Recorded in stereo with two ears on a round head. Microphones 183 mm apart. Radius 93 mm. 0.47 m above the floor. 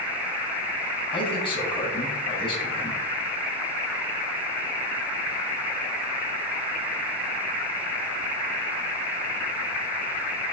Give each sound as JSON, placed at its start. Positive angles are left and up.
{"t": 1.1, "sound": "a man speaking", "side_deg": 25, "distance_m": 4.0}